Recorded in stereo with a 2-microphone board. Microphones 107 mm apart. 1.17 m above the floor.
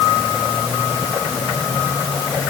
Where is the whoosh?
No whoosh in this recording.